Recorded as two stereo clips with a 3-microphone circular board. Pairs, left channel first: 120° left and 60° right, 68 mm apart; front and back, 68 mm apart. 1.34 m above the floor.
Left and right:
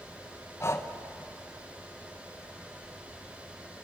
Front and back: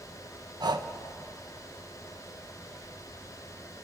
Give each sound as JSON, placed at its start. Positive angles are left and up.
{"t": 0.6, "sound": "breathing", "azimuth_deg": 170, "distance_m": 1.2}